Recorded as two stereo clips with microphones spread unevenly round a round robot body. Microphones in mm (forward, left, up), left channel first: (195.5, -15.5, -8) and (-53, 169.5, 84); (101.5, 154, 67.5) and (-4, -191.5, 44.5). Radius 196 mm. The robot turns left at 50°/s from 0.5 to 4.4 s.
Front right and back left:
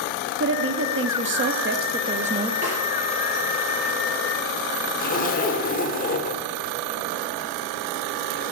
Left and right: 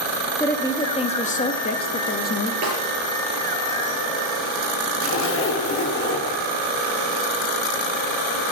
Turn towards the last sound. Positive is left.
turn(degrees=20)